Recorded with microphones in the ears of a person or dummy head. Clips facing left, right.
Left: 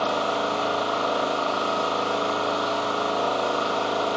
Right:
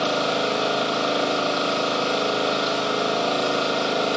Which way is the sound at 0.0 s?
30° right (ahead or behind).